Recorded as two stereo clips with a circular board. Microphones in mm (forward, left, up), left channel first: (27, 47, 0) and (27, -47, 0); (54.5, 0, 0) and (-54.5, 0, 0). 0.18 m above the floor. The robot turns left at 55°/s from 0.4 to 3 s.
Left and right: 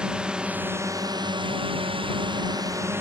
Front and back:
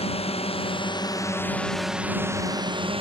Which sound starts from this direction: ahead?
A drone, at 0.0 s.